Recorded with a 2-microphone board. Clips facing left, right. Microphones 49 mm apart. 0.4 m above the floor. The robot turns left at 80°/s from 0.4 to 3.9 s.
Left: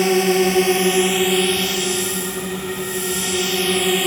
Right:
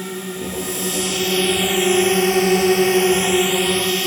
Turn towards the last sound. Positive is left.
turn(degrees=165)